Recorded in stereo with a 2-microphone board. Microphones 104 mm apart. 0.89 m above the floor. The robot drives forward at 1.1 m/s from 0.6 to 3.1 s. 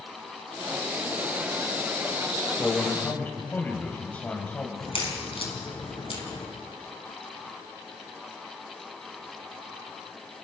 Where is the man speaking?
15° left (ahead or behind), 3.5 m.